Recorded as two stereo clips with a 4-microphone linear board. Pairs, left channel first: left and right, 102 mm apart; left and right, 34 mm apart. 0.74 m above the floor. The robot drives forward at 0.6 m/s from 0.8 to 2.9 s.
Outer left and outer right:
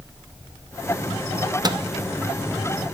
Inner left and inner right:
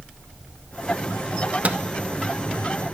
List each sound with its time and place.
1.6 s a microwave: 40° right (ahead or behind), 0.6 m